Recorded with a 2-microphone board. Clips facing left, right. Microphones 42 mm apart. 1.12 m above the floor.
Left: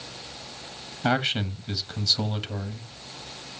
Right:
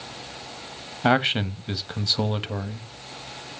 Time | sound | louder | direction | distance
1.0 | a man speaking | right 4 dB | 25° right (ahead or behind) | 1.1 m